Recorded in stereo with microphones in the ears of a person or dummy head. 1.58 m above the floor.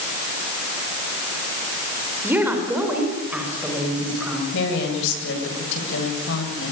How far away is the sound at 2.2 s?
About 4.5 m.